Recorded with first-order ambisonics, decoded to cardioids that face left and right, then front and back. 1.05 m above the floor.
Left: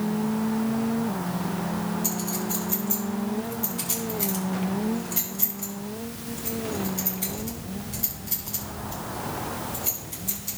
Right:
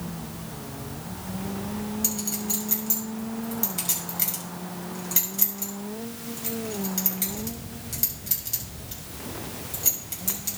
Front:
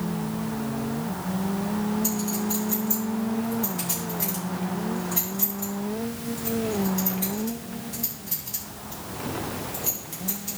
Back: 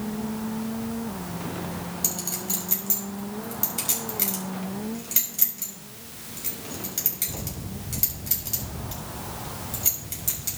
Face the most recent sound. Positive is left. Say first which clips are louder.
# even, front 2 dB
turn(degrees=-145)